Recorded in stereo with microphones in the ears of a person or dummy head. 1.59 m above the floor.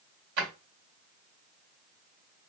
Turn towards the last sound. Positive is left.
turn(degrees=-50)  # may be behind; listen again after turning